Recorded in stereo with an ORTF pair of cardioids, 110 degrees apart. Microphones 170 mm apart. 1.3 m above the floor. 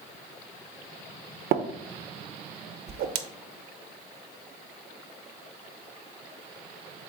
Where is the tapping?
70° right, 0.8 m.